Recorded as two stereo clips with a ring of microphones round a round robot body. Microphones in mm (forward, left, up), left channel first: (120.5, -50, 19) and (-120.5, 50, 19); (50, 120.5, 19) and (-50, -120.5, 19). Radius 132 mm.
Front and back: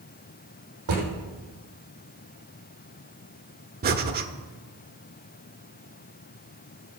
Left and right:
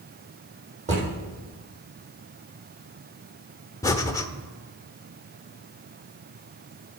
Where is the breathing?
140° left, 0.9 m.